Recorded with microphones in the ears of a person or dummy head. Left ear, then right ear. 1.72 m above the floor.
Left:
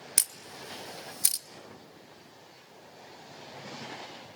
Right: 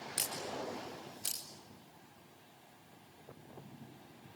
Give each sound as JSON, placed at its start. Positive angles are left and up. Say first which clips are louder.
{"t": 0.2, "sound": "a camera shutter", "louder": "left 6 dB", "side_deg": 45, "distance_m": 1.0}